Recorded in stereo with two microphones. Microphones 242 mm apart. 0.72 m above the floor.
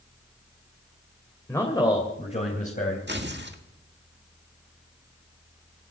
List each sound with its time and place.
1.5 s a man speaking: 10° left (ahead or behind), 2.5 m; by 3.0 s 35° left (ahead or behind), 4 m
3.1 s tearing paper: 45° right (ahead or behind), 1.7 m